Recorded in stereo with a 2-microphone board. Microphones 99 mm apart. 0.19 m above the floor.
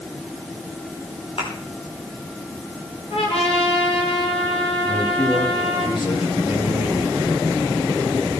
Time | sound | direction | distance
1.4 | a thud | 70° left (ahead or behind) | 7 m
3.1 | a trumpet | 75° left (ahead or behind) | 6 m
4.9 | a man speaking | 60° left (ahead or behind) | 8 m